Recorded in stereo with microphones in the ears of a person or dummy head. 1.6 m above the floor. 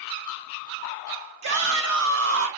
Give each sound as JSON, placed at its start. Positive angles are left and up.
{"t": 1.4, "sound": "a shout", "side_deg": -75, "distance_m": 4.0}